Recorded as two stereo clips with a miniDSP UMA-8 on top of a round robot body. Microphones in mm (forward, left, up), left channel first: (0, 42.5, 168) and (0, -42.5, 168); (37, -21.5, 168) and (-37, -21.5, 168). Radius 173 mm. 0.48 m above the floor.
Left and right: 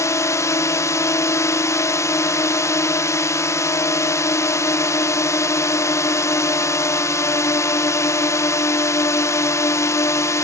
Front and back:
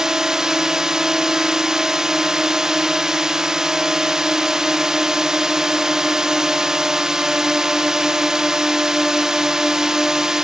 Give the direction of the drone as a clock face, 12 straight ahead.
9 o'clock.